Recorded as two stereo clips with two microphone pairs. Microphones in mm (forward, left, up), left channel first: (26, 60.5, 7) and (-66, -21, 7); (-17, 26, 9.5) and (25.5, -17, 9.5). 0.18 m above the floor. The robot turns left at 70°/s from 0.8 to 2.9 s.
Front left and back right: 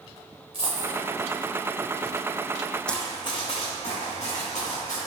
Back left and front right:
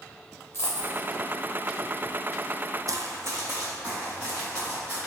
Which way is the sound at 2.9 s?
40° right.